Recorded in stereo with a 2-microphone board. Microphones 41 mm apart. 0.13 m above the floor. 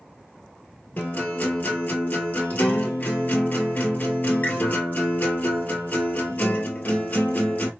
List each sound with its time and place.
1.0 s a guitar: 45° left (ahead or behind), 1.4 m